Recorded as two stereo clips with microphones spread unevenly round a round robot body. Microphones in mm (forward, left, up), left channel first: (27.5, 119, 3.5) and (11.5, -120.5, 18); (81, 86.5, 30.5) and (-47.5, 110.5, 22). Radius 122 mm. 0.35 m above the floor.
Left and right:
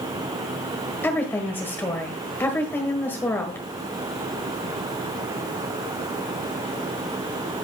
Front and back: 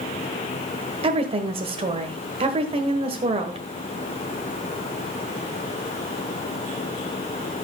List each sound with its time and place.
1.0 s a woman speaking: 165° left, 1.4 m